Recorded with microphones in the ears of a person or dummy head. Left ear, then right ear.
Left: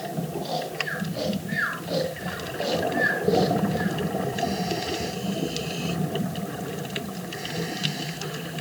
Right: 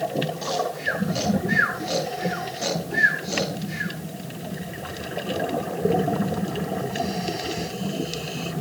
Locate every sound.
0.4 s snoring: 85° right, 6.5 m